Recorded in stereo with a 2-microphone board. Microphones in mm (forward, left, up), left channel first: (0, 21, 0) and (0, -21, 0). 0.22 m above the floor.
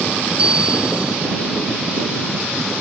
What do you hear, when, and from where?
0.4 s a bell: 20° right (ahead or behind)